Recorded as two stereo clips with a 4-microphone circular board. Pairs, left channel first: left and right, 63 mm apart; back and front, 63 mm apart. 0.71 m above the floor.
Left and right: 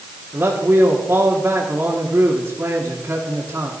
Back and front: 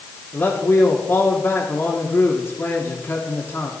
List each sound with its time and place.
0.3 s a man speaking: 135° right, 1.7 m